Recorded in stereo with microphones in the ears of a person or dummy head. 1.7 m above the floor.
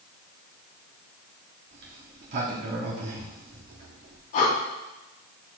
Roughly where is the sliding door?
Right.